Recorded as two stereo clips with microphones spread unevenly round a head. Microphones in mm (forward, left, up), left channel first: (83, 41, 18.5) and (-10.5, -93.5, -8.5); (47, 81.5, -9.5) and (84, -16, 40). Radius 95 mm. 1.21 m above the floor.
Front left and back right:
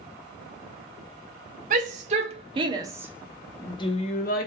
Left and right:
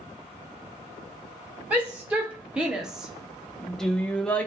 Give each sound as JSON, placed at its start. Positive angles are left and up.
{"t": 1.7, "sound": "a shout", "azimuth_deg": -160, "distance_m": 1.3}